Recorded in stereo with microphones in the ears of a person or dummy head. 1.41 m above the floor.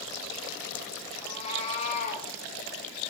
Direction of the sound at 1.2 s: 30° left (ahead or behind).